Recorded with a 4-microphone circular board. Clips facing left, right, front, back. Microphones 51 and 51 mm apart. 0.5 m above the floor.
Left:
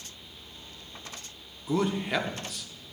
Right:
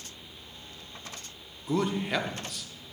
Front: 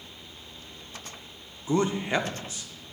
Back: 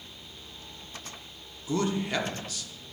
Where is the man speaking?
10° left, 0.7 m.